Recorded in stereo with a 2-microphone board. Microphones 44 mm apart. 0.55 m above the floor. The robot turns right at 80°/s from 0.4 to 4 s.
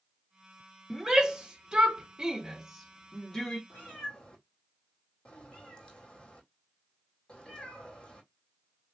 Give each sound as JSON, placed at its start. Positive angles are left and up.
{"t": 0.9, "sound": "a shout", "side_deg": -5, "distance_m": 1.1}
{"t": 3.7, "sound": "a cat meowing", "side_deg": 50, "distance_m": 2.5}